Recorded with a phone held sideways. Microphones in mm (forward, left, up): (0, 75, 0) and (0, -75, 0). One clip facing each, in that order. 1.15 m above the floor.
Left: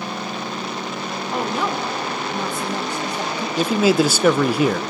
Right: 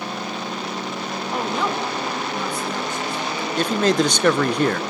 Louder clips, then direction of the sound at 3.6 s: Left 2 dB; 5° left (ahead or behind).